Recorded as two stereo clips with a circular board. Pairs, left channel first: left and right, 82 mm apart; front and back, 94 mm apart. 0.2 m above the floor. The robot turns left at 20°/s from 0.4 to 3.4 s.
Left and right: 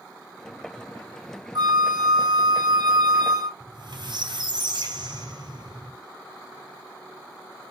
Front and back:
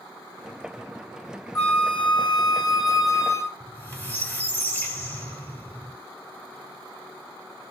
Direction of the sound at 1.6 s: 65° right.